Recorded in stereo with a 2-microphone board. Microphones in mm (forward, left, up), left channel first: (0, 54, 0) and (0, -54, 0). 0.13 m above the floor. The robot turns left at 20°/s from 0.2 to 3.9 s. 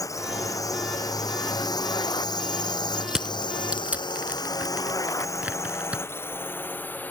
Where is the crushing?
5° right (ahead or behind); by 6.0 s 15° right (ahead or behind).